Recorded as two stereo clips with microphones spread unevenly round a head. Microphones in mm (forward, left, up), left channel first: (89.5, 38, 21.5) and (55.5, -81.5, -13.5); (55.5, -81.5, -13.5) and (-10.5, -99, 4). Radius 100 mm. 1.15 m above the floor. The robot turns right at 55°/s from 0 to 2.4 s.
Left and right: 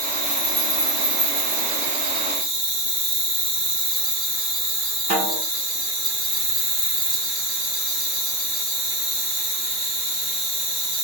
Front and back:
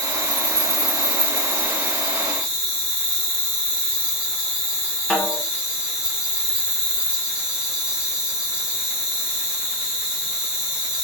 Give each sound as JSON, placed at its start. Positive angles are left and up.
{"t": 0.0, "sound": "an insect", "azimuth_deg": 170, "distance_m": 1.4}
{"t": 5.1, "sound": "a snare drum", "azimuth_deg": -75, "distance_m": 2.5}